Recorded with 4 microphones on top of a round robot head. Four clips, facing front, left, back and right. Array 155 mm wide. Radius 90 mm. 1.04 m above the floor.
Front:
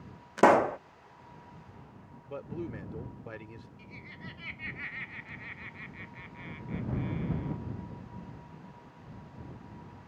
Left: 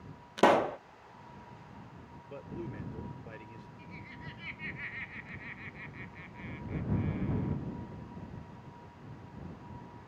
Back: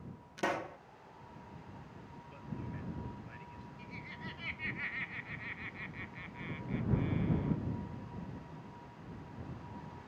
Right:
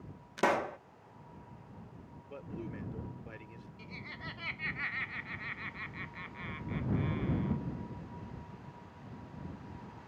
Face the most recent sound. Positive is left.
turn(degrees=-95)